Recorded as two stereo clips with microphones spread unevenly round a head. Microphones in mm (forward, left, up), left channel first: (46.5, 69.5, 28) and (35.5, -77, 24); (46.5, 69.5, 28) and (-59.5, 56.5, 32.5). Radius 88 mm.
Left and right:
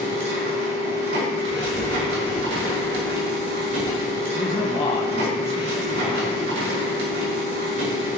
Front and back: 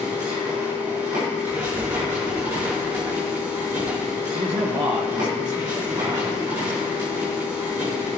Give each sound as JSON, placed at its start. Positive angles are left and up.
{"t": 0.0, "sound": "a machine running", "azimuth_deg": -105, "distance_m": 5.0}
{"t": 1.5, "sound": "writing", "azimuth_deg": 135, "distance_m": 0.8}
{"t": 4.3, "sound": "a man speaking", "azimuth_deg": 140, "distance_m": 1.4}